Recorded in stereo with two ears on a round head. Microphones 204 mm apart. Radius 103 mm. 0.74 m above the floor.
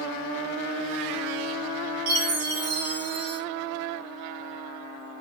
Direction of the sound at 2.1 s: 65° right (ahead or behind).